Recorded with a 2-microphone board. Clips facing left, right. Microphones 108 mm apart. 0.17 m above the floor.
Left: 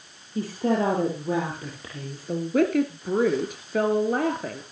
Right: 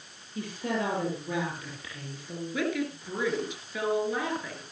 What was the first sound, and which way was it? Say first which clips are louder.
A woman speaking: left 8 dB; 40° left (ahead or behind).